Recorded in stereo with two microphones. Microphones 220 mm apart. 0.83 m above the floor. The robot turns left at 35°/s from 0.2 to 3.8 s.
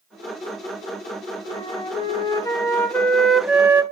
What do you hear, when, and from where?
1.5 s a flute: 65° left, 0.7 m; by 3.8 s 15° right, 0.7 m